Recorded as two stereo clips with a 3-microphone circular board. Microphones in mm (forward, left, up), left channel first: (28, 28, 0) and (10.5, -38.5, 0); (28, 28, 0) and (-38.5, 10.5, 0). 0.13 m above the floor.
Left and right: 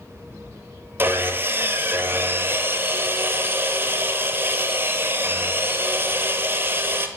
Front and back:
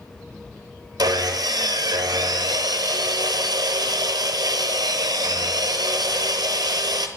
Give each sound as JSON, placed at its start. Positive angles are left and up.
{"t": 1.0, "sound": "sawing", "azimuth_deg": -160, "distance_m": 0.6}